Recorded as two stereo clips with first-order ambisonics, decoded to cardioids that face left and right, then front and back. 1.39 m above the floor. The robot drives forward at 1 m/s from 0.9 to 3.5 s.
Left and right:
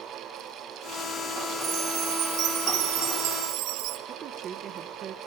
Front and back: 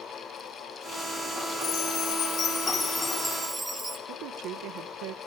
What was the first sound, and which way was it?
A chime, 40° right.